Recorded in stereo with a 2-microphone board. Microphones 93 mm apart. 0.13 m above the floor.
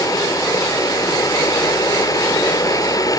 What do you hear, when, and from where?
0.0 s running water: 40° left (ahead or behind), 1.4 m